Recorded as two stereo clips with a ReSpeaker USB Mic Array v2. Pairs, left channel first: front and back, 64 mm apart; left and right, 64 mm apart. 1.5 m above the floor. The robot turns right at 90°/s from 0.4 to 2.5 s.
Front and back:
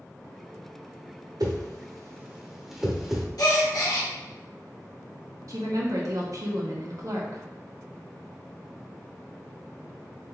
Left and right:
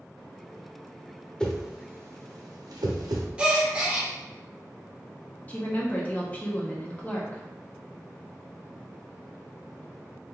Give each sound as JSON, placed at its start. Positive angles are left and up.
{"t": 1.4, "sound": "a whoosh", "azimuth_deg": 165, "distance_m": 0.7}
{"t": 3.4, "sound": "a gasp", "azimuth_deg": -15, "distance_m": 0.9}
{"t": 5.5, "sound": "a woman speaking", "azimuth_deg": 155, "distance_m": 0.8}